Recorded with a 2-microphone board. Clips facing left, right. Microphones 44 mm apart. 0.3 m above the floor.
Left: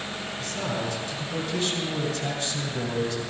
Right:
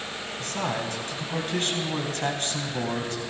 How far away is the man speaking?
About 2 m.